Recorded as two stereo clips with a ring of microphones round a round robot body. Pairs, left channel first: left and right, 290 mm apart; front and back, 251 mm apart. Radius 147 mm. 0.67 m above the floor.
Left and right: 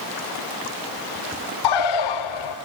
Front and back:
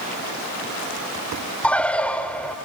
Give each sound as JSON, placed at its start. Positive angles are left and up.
{"t": 1.6, "sound": "a bird", "azimuth_deg": 85, "distance_m": 0.7}